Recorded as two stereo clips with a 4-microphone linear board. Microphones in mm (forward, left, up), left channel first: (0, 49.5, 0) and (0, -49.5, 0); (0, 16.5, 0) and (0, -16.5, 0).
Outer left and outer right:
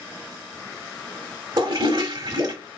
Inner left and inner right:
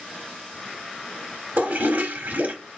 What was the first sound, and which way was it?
A toilet flushing, 50° right (ahead or behind).